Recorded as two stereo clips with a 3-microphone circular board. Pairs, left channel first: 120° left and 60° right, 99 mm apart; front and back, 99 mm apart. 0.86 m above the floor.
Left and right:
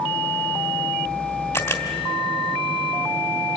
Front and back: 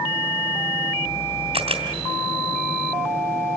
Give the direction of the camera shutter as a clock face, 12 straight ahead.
6 o'clock.